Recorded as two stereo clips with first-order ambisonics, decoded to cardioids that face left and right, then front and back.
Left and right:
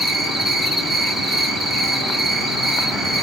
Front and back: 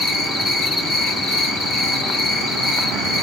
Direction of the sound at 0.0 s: 10° right.